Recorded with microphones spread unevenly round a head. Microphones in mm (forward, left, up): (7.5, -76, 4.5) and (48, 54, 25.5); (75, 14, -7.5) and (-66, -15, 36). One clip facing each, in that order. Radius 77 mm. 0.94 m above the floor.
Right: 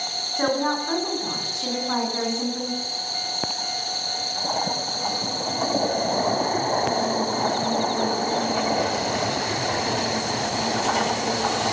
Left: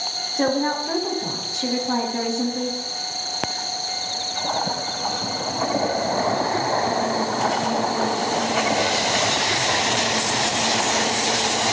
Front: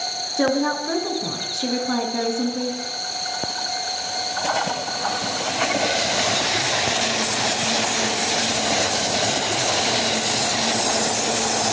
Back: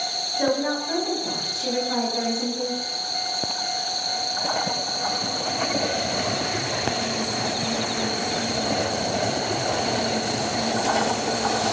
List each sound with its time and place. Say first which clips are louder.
0.4 s a woman speaking: left 2 dB, front 3 dB; 10° left, 9 m